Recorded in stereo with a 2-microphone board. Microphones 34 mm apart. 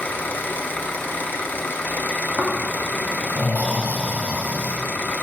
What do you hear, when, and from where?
0.0 s an engine running: 70° left (ahead or behind), 1.0 m
2.4 s snoring: 55° left (ahead or behind), 1.9 m